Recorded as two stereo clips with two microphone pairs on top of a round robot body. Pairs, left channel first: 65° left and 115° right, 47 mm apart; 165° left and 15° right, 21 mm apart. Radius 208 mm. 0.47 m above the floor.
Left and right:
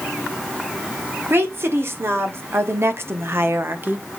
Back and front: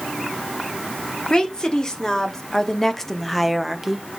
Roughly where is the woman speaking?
Behind right.